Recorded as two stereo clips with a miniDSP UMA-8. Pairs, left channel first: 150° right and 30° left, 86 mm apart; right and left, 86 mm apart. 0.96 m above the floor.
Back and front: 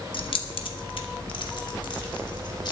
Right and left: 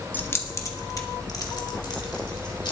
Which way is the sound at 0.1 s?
160° right.